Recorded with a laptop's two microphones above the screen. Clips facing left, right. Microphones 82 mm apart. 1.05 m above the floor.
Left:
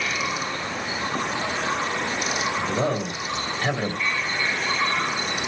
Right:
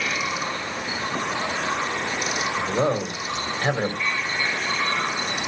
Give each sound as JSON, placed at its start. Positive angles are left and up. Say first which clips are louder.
{"t": 2.6, "sound": "a man speaking", "louder": "right 4 dB", "side_deg": -30, "distance_m": 3.5}